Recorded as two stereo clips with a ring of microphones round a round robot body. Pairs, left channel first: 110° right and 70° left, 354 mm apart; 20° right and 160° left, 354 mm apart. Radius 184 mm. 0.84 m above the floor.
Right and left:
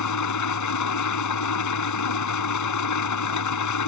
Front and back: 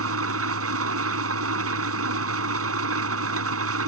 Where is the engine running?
150° right.